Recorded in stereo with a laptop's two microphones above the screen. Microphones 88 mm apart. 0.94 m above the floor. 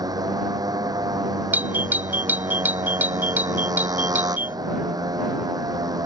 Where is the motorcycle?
45° right (ahead or behind).